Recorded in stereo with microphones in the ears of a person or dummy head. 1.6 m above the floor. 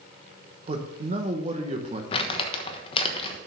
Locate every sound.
0.7 s a man speaking: 35° right (ahead or behind), 1.0 m
2.1 s crumpling: 35° left (ahead or behind), 1.2 m